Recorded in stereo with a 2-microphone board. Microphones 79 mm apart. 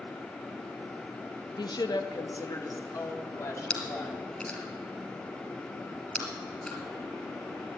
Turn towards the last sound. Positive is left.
turn(degrees=15)  # may be behind; listen again after turning